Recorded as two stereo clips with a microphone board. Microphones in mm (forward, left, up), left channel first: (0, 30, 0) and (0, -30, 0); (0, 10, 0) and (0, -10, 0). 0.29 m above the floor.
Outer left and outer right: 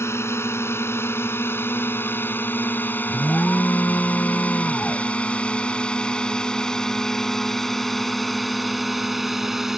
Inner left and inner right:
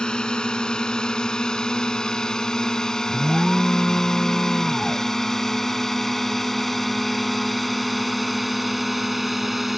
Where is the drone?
45° left (ahead or behind); by 9.8 s 5° right (ahead or behind).